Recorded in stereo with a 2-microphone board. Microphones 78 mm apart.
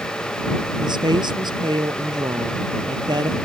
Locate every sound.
0.8 s a woman speaking: 70° right (ahead or behind)